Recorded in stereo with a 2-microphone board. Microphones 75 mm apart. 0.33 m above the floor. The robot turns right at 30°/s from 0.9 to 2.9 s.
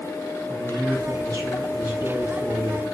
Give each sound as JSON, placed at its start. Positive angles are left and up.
{"t": 0.5, "sound": "a man speaking", "azimuth_deg": -85, "distance_m": 2.5}